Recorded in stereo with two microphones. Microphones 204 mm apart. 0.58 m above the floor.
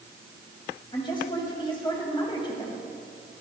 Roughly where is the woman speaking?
Left.